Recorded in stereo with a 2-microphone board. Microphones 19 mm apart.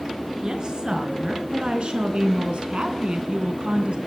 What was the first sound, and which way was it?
A woman speaking, 45° right (ahead or behind).